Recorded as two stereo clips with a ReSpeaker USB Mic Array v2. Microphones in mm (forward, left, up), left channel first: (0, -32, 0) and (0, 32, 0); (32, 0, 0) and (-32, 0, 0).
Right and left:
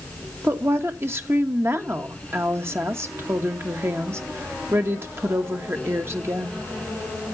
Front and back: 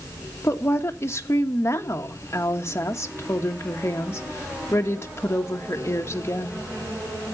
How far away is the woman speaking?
About 1.2 m.